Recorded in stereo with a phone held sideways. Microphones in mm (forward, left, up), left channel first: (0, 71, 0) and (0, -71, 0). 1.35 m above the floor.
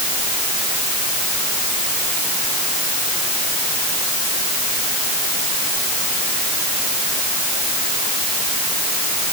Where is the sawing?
I don't hear sawing.